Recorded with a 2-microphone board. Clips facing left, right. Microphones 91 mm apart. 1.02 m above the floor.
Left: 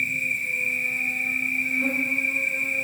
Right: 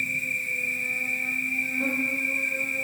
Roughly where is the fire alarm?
I don't hear a fire alarm.